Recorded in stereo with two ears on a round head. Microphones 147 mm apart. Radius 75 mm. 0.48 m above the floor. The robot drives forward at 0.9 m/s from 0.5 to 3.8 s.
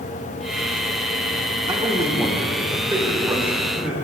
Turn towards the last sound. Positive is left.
turn(degrees=-10)  # may be behind; listen again after turning